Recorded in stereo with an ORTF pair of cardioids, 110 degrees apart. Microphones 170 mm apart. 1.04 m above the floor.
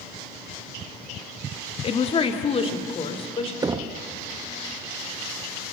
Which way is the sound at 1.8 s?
35° left.